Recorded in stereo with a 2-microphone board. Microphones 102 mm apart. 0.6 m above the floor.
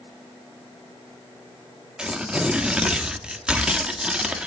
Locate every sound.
2.0 s tearing paper: 10° right (ahead or behind), 1.0 m